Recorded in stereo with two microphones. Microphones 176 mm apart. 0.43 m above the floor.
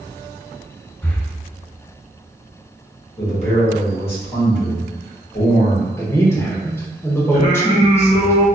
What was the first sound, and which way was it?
Breathing, 10° left (ahead or behind).